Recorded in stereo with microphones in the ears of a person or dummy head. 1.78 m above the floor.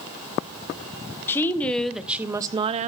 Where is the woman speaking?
15° left (ahead or behind), 1.5 m; by 2.9 s 40° right (ahead or behind), 0.9 m.